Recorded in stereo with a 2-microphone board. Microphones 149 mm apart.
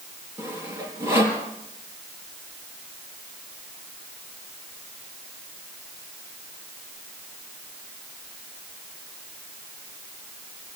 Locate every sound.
0.4 s sawing: 20° right (ahead or behind), 4.5 m